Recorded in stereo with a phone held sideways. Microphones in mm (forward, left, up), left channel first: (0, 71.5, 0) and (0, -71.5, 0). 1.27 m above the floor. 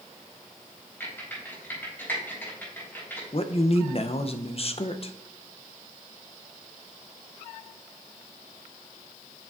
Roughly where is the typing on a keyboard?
Centre.